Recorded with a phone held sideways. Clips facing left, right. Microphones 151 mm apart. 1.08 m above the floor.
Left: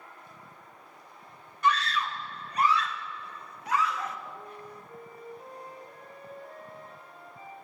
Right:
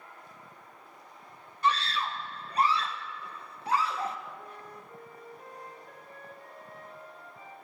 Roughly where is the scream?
Right.